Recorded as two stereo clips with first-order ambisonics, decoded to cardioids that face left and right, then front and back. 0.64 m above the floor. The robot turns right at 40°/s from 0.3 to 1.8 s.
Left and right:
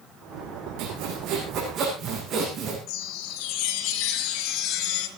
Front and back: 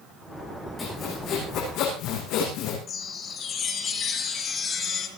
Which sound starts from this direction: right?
Sawing, at 0.8 s.